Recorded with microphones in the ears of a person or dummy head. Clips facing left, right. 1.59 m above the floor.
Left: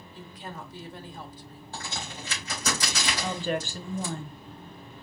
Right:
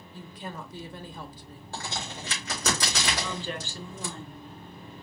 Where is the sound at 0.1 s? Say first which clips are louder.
Right 2 dB; 75° right (ahead or behind), 0.9 m.